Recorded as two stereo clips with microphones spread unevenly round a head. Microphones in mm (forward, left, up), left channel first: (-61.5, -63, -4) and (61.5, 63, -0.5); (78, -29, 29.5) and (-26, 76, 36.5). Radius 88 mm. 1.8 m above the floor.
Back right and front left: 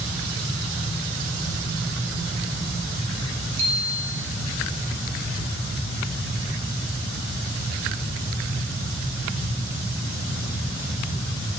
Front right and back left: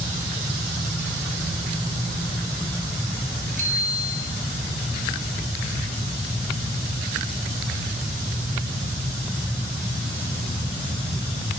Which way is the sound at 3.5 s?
100° left.